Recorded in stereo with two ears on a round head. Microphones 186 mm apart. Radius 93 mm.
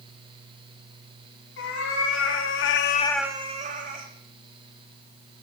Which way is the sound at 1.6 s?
60° left (ahead or behind).